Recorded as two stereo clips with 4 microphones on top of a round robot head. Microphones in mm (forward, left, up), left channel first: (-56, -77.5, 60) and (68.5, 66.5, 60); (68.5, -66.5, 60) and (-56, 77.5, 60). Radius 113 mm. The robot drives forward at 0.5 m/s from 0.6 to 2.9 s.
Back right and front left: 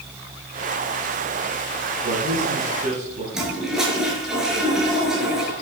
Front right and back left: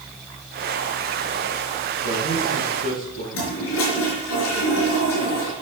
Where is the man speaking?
5° right, 7 m.